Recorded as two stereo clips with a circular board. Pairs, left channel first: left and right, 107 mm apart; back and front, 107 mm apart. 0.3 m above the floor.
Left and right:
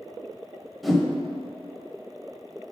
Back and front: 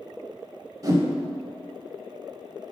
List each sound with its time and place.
0.8 s a whoosh: straight ahead, 1.2 m